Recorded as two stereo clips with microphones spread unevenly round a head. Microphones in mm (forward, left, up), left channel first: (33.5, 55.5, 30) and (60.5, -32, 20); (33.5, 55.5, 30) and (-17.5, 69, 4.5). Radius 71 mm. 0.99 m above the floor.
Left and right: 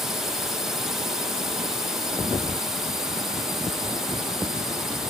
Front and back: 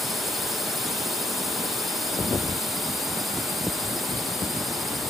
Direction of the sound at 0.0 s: 150° right.